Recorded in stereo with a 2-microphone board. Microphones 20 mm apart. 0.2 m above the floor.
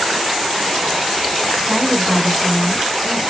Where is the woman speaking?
20° left (ahead or behind), 1.8 m; by 3.3 s 15° right (ahead or behind), 2 m.